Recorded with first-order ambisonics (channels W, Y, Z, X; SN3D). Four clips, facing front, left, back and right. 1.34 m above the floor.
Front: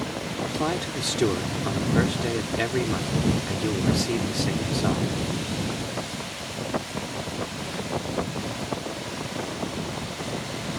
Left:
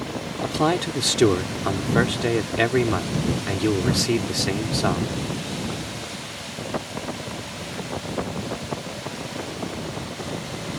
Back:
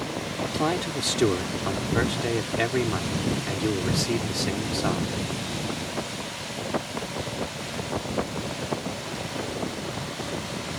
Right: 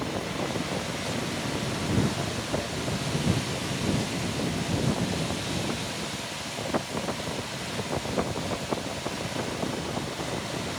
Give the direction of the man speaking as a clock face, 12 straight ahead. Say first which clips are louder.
Left 13 dB, back 1 dB; 9 o'clock.